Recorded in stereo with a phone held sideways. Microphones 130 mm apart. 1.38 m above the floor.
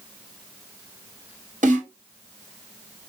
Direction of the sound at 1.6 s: 80° right.